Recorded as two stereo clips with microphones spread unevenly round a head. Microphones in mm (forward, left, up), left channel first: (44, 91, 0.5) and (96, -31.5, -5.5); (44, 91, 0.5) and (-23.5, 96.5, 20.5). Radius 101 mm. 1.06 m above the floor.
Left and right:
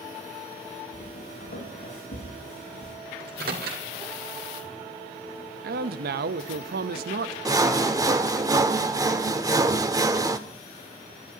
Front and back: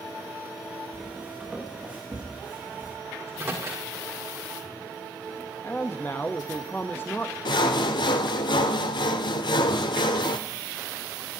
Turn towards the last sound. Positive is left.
turn(degrees=-5)